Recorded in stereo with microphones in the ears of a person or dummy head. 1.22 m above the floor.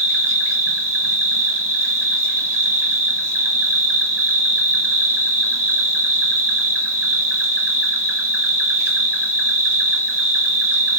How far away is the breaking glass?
No breaking glass in this recording.